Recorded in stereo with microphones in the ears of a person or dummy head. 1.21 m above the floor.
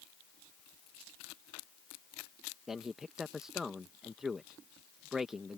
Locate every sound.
2.7 s a man speaking: centre (ahead or behind)